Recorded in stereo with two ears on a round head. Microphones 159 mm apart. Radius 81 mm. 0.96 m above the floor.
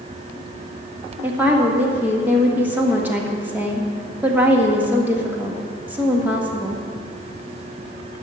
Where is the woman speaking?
10° right (ahead or behind), 1.6 m.